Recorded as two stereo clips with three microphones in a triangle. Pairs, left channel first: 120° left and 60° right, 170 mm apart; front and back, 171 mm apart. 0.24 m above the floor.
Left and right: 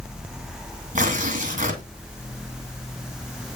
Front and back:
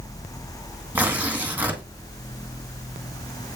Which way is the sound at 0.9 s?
100° right.